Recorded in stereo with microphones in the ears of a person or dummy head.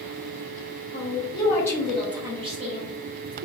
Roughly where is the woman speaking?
Left.